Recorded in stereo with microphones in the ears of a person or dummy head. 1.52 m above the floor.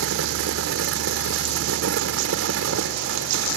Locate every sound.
0.0 s a fan: 85° right